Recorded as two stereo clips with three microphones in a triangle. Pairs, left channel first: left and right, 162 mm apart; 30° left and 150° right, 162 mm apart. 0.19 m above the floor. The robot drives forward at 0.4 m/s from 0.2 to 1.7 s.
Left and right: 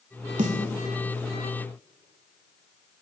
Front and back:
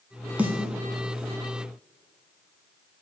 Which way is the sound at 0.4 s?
70° right.